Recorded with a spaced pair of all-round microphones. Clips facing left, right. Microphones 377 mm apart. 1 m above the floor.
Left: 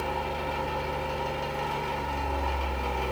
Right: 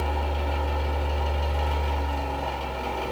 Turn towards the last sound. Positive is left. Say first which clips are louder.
# right 1 dB
turn(degrees=-45)  # may be behind; listen again after turning